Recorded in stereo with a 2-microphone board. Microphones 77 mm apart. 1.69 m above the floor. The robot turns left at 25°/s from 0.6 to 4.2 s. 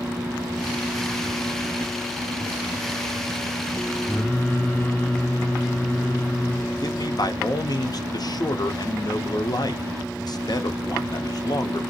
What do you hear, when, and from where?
4.1 s singing: 15° left (ahead or behind), 1.2 m
6.8 s a man speaking: 60° left (ahead or behind), 0.7 m